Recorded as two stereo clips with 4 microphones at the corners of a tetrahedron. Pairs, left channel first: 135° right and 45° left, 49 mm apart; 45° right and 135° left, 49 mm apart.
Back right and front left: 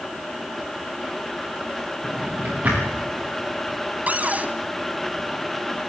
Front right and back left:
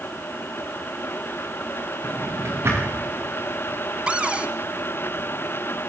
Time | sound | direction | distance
2.0 | a drawer | 95° left | 8 m
4.1 | a cupboard door | 80° left | 1.1 m